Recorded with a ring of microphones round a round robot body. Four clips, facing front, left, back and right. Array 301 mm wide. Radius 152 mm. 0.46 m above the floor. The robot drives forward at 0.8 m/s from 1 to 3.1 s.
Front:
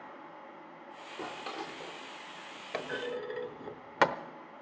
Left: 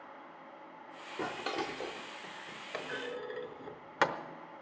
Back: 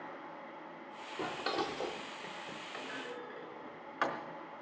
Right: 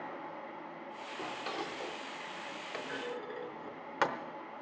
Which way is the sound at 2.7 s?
5° left.